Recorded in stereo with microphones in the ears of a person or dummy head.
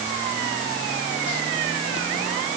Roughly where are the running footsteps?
No running footsteps in this recording.